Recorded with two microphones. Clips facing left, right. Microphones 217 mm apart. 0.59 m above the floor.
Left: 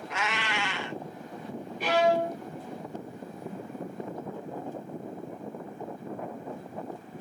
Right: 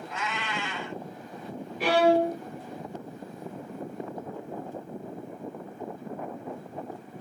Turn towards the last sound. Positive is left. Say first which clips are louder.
# right 3 dB
turn(degrees=-85)